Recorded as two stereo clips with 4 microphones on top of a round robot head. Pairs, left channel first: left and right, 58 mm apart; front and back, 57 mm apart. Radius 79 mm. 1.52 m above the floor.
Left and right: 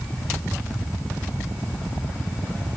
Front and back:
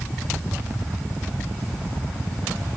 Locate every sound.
Only background noise.